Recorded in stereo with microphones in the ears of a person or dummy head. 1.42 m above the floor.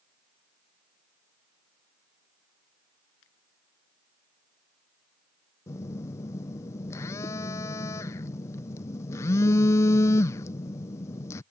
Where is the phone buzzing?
20° left (ahead or behind).